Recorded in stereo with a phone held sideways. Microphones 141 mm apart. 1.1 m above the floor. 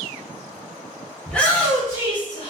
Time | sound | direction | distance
1.3 | a shout | 5° left (ahead or behind) | 1.0 m